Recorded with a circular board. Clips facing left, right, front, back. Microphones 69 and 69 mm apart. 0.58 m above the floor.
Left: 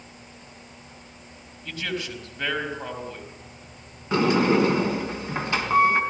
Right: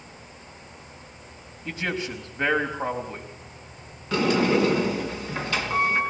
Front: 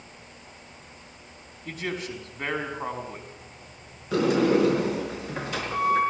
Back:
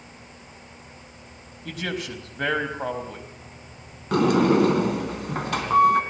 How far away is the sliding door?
About 3 m.